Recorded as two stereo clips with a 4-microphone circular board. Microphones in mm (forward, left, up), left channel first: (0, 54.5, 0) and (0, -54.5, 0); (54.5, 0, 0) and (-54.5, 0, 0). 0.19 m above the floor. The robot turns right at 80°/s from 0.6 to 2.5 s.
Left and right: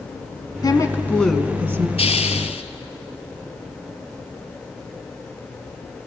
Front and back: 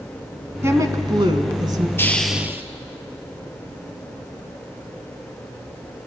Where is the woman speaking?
125° left, 1.4 m; by 1.9 s 135° right, 1.4 m.